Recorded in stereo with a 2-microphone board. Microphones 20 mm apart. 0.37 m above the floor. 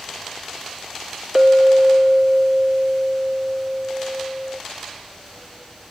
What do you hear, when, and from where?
1.4 s a clink: 35° right (ahead or behind), 0.7 m